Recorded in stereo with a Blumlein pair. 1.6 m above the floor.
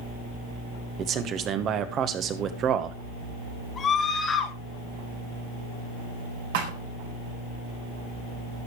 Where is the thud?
55° right, 4 m.